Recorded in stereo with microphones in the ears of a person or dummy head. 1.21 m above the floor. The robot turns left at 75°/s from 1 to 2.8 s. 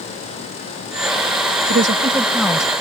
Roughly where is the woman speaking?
Behind right.